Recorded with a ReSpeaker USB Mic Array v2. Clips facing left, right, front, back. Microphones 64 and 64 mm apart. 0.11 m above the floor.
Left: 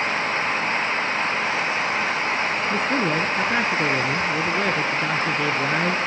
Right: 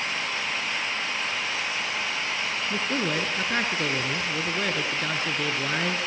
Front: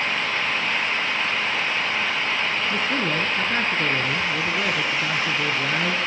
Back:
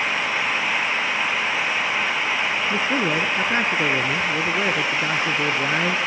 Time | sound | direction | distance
2.7 | a man speaking | 150° left | 1.9 m